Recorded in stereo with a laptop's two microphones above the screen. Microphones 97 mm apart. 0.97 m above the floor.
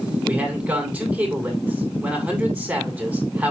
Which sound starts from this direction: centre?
A man speaking, at 0.2 s.